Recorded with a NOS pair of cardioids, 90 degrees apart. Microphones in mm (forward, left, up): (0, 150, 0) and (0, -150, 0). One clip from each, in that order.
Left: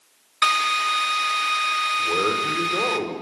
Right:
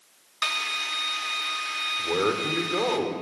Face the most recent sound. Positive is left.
turn(degrees=0)